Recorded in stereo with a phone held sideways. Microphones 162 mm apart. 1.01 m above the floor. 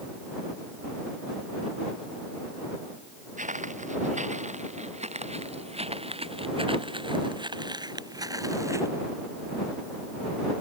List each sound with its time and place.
3.4 s footsteps: 50° right (ahead or behind); by 8.9 s 20° right (ahead or behind)